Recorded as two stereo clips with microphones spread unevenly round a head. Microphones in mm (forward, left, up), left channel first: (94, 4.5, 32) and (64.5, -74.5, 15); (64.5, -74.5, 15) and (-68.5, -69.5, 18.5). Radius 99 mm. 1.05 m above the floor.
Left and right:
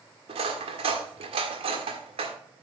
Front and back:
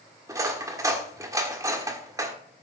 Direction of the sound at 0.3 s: 115° right.